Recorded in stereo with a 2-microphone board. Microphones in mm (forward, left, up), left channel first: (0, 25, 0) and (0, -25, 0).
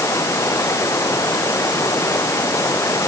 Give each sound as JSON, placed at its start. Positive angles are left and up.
{"t": 0.0, "sound": "running water", "side_deg": 85}